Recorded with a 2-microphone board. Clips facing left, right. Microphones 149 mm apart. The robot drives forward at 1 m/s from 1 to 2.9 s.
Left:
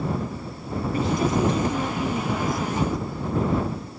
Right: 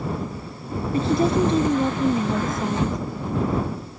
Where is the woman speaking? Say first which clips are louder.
Right 4 dB; 35° right (ahead or behind); by 3.0 s 20° right (ahead or behind).